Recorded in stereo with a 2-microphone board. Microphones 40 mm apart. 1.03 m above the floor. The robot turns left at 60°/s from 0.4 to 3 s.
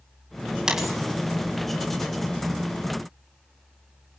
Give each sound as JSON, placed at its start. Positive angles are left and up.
{"t": 0.7, "sound": "a dropped coin", "side_deg": -20, "distance_m": 2.5}